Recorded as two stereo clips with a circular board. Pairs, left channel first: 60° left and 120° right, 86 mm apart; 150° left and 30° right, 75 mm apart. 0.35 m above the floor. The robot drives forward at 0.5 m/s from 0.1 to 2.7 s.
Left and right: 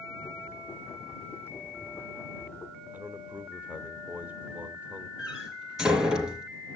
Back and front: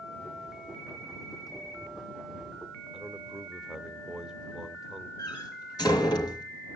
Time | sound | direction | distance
2.9 | a man speaking | 95° right | 1.2 m
5.2 | a door slam | 160° left | 4 m